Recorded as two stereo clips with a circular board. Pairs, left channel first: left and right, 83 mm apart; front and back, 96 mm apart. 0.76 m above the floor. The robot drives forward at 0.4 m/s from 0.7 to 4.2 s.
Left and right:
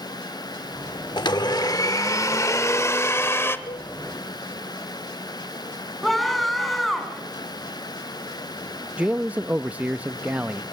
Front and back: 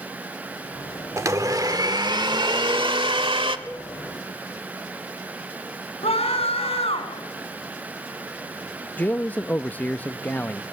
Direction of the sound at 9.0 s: 45° right.